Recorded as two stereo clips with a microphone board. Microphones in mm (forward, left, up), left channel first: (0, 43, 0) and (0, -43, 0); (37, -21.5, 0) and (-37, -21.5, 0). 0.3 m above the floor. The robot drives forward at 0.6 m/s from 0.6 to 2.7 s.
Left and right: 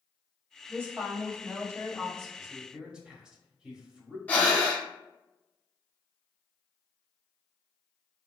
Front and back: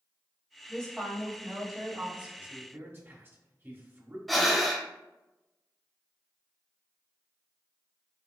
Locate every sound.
0.7 s a woman speaking: 65° right, 1.8 m; by 2.3 s 120° right, 1.8 m
2.4 s a man speaking: 150° right, 0.9 m; by 4.2 s 160° right, 1.0 m
4.3 s breathing: 85° left, 0.9 m